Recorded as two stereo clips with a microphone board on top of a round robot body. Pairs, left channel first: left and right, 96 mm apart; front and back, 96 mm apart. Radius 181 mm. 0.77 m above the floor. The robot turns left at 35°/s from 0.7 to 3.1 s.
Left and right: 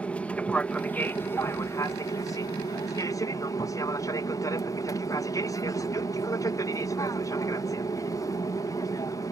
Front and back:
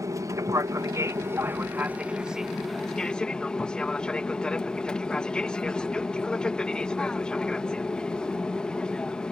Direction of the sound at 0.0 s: 160° left.